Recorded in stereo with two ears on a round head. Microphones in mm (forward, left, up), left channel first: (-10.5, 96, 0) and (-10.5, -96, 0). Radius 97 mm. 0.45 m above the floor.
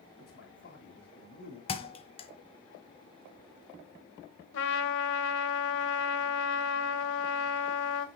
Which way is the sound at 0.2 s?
45° left (ahead or behind).